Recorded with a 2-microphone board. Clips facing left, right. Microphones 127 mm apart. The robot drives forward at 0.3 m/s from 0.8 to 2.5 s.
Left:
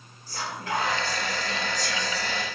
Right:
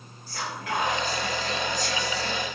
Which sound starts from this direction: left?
Whispering, at 0.3 s.